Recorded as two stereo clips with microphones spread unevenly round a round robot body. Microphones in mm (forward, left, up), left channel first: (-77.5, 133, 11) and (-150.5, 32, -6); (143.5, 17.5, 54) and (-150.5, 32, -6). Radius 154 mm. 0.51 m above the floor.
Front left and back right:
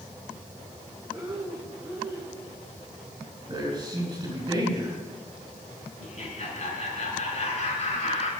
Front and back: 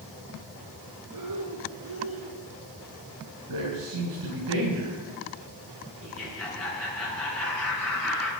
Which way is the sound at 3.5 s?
Straight behind.